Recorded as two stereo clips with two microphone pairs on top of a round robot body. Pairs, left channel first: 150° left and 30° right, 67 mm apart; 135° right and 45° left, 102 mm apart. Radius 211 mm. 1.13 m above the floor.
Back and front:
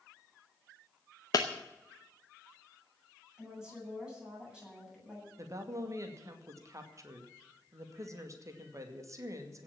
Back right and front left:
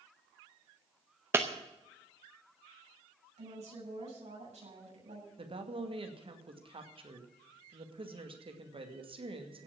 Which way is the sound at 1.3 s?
115° left.